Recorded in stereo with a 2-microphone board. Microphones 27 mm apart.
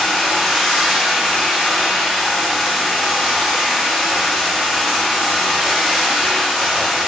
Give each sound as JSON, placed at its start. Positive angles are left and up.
{"t": 0.0, "sound": "running water", "side_deg": -5, "distance_m": 1.3}